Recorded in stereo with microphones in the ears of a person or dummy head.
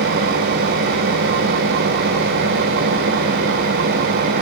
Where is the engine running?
50° right (ahead or behind), 1.2 m.